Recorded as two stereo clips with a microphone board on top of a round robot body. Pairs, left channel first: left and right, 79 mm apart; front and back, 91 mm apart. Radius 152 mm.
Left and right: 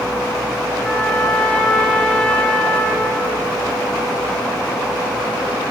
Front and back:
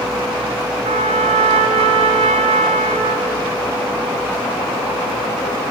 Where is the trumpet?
170° left, 2 m.